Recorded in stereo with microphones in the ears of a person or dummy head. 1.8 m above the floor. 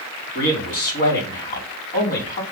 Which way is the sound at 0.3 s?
60° left (ahead or behind).